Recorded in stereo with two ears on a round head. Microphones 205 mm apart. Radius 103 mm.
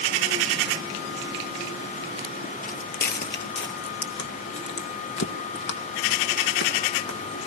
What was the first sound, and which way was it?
Footsteps, 35° left (ahead or behind).